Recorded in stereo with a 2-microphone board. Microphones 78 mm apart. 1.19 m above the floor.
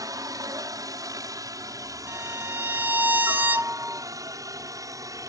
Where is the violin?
25° right (ahead or behind).